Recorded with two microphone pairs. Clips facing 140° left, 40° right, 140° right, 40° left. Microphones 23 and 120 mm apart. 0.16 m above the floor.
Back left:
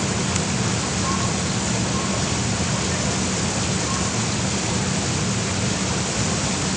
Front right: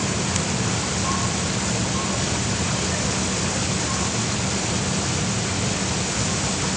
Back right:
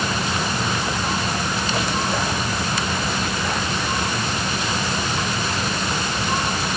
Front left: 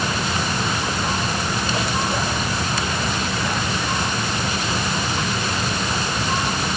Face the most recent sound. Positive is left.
No sound to turn to.